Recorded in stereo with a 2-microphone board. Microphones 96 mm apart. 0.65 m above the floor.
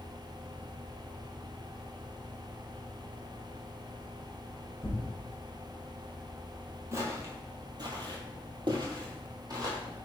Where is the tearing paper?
25° left (ahead or behind), 0.9 m.